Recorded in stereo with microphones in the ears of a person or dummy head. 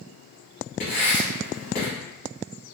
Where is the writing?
50° left (ahead or behind), 1.3 m.